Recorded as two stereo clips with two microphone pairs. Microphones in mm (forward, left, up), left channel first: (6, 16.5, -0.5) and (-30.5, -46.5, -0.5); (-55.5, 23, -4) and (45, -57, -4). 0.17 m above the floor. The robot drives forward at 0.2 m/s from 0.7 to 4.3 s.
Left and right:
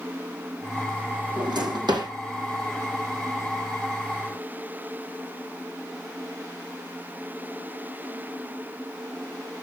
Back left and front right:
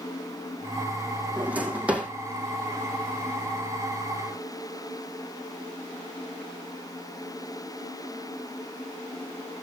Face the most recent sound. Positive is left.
turn(degrees=-130)